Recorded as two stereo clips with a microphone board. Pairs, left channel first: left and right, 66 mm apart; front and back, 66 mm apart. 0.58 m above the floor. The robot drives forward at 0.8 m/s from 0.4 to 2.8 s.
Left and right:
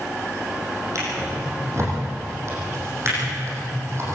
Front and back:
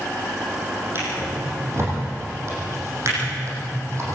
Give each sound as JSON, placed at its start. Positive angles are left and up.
{"t": 0.9, "sound": "a drawer", "azimuth_deg": -130, "distance_m": 7.5}